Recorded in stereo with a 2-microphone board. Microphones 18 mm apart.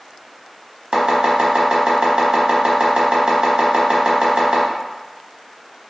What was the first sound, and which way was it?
Chopping, 60° right (ahead or behind).